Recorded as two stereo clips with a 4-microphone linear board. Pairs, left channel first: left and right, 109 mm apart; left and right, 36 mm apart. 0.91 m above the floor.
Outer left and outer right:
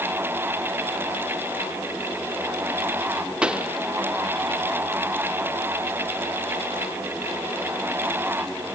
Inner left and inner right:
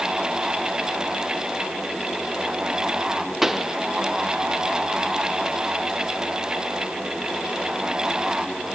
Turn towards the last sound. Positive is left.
turn(degrees=-10)  # may be behind; listen again after turning